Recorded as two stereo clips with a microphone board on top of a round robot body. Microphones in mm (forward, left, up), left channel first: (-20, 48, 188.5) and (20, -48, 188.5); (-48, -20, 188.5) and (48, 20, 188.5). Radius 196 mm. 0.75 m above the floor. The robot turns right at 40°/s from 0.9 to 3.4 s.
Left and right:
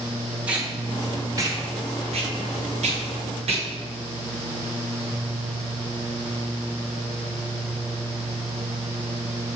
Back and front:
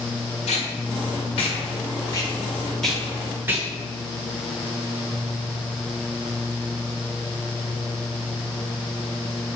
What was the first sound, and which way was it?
Tape being pulled, 145° right.